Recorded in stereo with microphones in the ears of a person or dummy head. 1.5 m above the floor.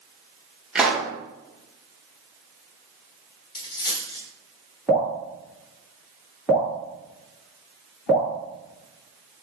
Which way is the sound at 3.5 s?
30° left (ahead or behind).